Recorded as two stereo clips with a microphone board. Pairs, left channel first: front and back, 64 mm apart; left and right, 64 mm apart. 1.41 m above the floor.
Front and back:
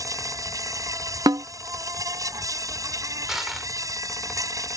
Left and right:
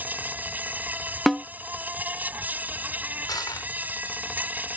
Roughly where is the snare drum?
Behind.